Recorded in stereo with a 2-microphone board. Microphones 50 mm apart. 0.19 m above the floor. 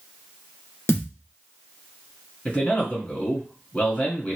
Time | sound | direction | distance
0.9 | a thud | 60° left (ahead or behind) | 1.4 m
2.5 | a man speaking | 30° left (ahead or behind) | 2 m